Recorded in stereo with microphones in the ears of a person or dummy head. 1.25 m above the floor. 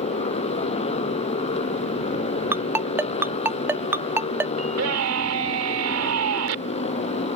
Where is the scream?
75° right (ahead or behind).